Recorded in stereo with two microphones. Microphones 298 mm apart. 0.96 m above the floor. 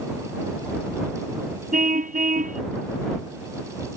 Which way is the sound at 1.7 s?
30° right (ahead or behind).